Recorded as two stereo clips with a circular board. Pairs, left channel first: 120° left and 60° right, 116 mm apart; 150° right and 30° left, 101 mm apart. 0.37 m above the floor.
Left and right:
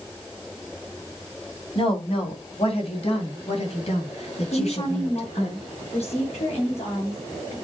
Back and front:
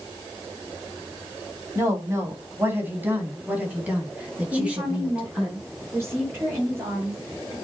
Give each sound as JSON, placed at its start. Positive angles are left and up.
{"t": 1.8, "sound": "a woman speaking", "azimuth_deg": 90, "distance_m": 2.5}
{"t": 4.5, "sound": "a woman speaking", "azimuth_deg": 95, "distance_m": 6.5}